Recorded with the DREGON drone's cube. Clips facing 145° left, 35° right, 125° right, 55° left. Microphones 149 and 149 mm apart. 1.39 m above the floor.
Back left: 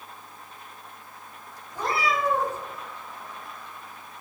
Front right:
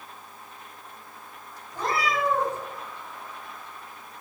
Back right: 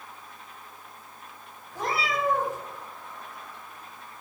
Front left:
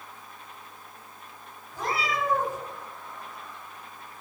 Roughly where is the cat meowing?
Behind right.